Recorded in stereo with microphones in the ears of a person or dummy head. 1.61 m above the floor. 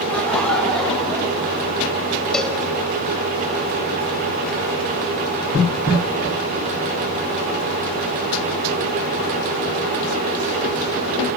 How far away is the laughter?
About 2 m.